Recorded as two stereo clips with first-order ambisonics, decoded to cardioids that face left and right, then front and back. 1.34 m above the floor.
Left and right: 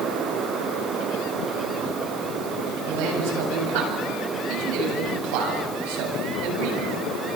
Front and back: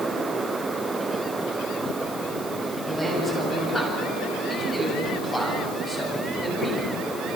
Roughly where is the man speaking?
Right.